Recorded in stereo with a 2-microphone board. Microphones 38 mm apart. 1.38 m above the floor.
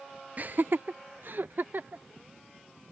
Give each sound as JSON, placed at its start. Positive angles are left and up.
{"t": 0.4, "sound": "laughter", "side_deg": -45}